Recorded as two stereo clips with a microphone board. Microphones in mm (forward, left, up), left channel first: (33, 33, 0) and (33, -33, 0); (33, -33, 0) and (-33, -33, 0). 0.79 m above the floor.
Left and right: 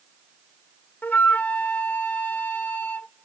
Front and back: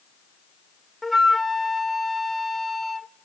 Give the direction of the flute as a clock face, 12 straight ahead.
9 o'clock.